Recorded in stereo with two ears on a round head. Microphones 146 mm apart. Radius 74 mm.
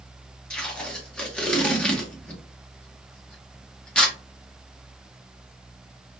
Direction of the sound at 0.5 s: 5° left (ahead or behind).